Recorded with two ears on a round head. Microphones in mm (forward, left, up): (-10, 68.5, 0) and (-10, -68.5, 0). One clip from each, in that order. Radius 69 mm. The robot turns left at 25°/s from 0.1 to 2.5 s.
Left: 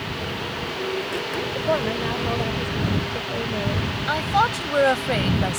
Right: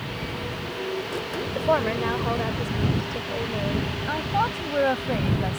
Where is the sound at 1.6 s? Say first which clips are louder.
Right 2 dB; 50° right (ahead or behind); by 3.9 s 25° right (ahead or behind).